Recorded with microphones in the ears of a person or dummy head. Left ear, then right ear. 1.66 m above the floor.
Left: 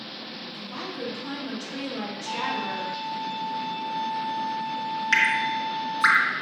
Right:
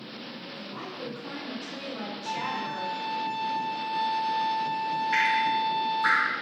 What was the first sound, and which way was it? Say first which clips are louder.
A woman speaking: left 4 dB; 85° left.